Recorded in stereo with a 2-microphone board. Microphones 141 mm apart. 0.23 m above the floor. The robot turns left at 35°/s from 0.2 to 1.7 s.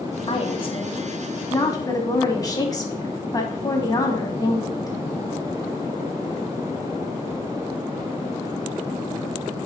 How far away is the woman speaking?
About 1.7 m.